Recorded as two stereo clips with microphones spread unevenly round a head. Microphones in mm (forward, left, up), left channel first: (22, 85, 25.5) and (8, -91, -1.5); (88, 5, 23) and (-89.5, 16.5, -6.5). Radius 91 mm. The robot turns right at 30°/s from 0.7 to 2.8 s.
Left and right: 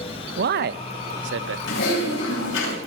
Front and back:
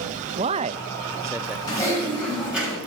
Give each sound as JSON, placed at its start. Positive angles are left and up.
{"t": 0.4, "sound": "a man speaking", "azimuth_deg": -125, "distance_m": 0.7}
{"t": 1.7, "sound": "typing on a keyboard", "azimuth_deg": 65, "distance_m": 10.0}